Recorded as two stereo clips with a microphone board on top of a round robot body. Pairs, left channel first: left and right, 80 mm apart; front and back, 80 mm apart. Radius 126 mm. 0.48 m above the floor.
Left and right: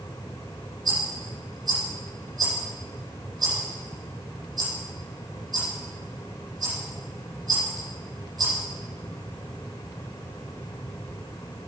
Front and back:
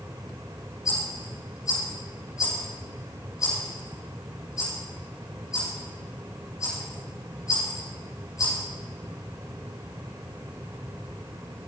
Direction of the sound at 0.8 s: 50° right.